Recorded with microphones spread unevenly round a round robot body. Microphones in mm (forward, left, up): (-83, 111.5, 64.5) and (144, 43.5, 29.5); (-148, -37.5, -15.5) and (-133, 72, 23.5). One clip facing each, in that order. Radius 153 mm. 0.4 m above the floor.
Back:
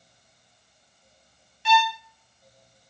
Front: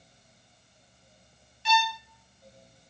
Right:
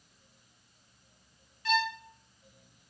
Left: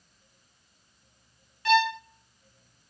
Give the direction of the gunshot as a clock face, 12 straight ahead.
No gunshot in this recording.